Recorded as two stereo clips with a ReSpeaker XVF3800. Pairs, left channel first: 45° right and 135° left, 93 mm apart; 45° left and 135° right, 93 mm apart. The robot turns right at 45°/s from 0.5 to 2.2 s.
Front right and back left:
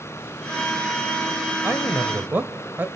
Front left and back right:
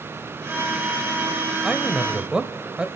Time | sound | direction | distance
1.6 | a man speaking | 130° left | 0.9 m